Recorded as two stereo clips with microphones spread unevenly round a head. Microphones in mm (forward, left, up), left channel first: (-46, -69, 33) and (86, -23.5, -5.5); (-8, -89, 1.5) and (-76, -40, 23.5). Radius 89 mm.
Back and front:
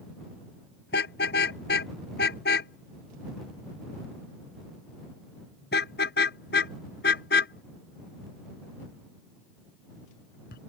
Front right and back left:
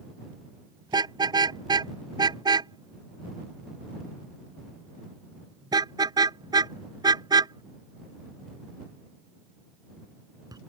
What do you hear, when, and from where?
0.9 s a car horn: straight behind